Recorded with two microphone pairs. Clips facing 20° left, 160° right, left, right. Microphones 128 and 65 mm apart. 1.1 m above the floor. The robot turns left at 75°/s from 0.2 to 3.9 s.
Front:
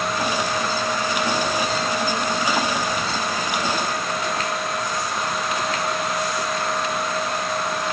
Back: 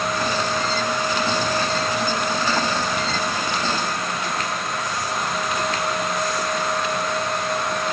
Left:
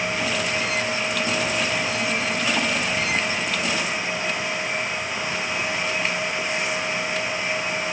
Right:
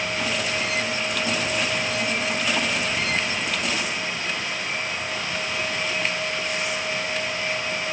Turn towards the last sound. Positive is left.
No sound to turn to.